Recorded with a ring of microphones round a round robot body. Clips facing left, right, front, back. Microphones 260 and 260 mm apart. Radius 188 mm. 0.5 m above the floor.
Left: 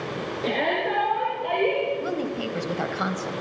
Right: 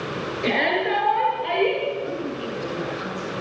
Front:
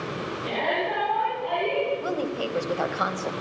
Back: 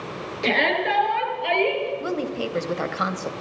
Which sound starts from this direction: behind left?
A woman speaking, at 2.0 s.